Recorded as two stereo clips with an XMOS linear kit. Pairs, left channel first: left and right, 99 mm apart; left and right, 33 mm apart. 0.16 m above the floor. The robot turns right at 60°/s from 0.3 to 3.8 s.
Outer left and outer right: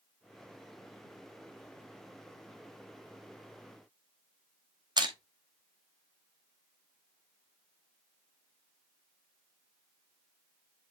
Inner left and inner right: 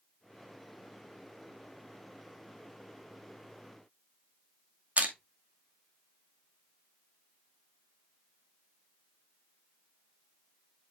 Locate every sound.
5.0 s crushing: 45° right (ahead or behind), 1.8 m